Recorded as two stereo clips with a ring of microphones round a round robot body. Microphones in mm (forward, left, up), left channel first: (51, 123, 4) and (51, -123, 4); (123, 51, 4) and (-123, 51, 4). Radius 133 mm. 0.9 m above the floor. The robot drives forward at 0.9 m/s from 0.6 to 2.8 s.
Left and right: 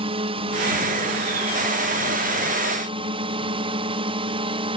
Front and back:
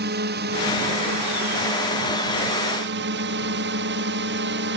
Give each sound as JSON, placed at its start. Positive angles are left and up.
{"t": 0.0, "sound": "a drone", "azimuth_deg": -150}